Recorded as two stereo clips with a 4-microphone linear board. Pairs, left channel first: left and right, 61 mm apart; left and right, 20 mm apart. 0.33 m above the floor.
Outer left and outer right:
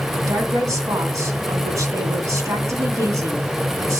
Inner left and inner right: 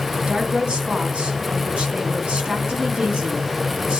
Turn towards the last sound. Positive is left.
turn(degrees=-65)  # may be behind; listen again after turning